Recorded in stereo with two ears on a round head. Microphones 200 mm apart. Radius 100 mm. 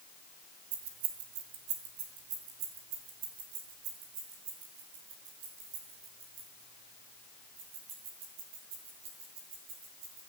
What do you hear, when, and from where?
0.7 s keys jangling: 65° right (ahead or behind), 2 m; by 10.2 s 55° right (ahead or behind), 8.5 m